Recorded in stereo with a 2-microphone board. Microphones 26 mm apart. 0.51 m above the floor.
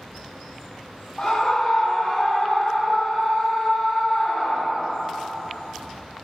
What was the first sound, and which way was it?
A scream, 30° left (ahead or behind).